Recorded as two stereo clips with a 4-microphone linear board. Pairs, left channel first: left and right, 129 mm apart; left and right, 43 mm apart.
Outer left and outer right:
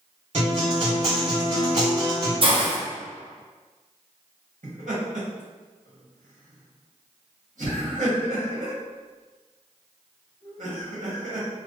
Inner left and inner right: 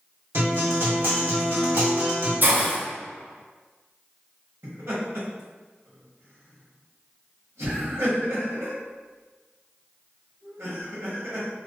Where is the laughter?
80° right, 1.6 m.